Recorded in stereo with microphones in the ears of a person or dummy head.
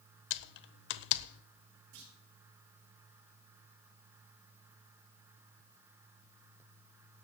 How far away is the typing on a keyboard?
About 0.8 m.